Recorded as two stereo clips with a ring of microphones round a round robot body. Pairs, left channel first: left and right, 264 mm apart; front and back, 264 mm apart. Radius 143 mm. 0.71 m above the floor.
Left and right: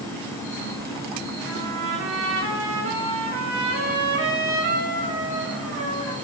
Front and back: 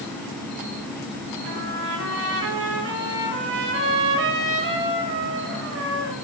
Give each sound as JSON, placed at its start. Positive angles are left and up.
{"t": 1.4, "sound": "a trumpet", "azimuth_deg": -140, "distance_m": 1.0}